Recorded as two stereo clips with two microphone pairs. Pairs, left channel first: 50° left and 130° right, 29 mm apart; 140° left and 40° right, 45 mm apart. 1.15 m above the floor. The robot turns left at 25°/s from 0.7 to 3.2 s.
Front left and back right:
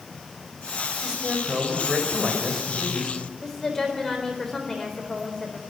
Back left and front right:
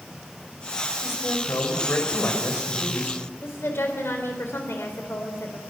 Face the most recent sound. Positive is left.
turn(degrees=120)